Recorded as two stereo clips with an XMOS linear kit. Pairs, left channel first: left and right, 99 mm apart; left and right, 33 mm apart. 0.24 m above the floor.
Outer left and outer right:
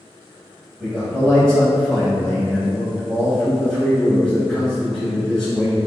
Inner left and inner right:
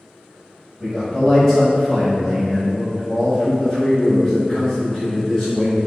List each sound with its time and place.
0.8 s a man speaking: 5° left (ahead or behind), 1.1 m